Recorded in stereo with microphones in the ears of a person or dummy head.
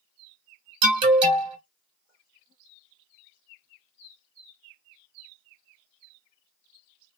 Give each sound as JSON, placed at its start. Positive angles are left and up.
{"t": 0.8, "sound": "an alarm", "side_deg": -35, "distance_m": 1.9}